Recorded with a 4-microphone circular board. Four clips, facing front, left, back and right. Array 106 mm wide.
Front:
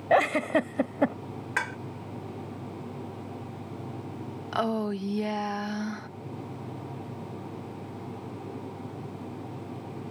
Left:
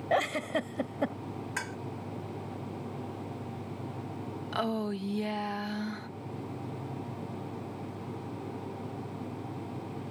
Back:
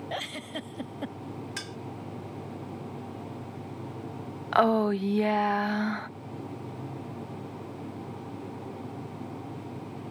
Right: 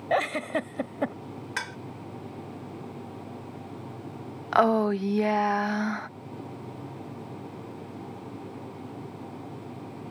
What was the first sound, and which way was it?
A giggle, 15° right.